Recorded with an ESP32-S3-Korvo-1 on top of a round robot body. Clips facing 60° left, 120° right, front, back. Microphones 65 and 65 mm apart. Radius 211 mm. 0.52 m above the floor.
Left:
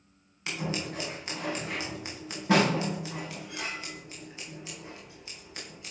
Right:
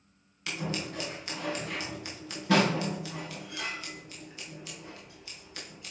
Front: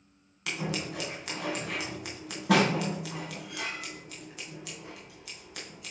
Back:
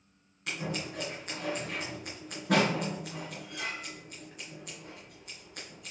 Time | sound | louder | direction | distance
0.5 | scissors | left 1 dB, front 2 dB | 5° right | 2.5 m